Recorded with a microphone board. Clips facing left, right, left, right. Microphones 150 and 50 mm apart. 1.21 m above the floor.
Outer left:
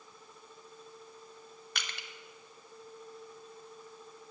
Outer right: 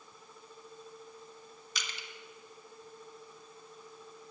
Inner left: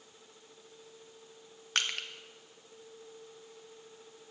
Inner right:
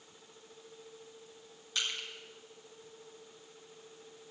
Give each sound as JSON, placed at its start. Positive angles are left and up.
{"t": 1.8, "sound": "crushing", "side_deg": 60, "distance_m": 0.8}